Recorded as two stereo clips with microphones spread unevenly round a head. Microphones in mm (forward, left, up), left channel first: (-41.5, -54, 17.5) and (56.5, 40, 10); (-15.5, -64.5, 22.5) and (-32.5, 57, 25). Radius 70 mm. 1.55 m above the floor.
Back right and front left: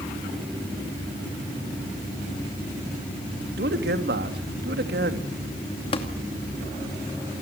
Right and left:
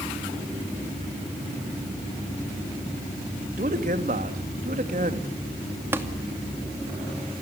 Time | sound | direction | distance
3.6 | a man speaking | 60° left | 3 m
5.9 | tapping | 170° left | 2.5 m